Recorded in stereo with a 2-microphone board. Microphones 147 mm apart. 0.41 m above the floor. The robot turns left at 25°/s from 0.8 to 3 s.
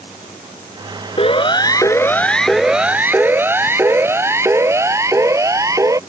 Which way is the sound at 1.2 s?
40° left (ahead or behind).